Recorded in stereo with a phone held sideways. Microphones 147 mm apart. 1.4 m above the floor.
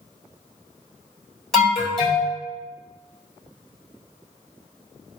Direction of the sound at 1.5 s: 5° left (ahead or behind).